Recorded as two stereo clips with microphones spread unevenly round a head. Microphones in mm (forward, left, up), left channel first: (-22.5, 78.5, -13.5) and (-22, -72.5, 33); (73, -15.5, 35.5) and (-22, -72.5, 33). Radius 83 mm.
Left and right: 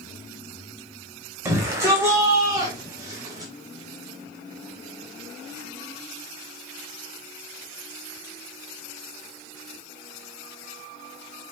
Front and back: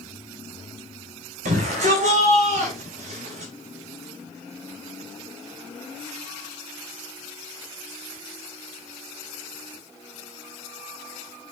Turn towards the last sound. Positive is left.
turn(degrees=-145)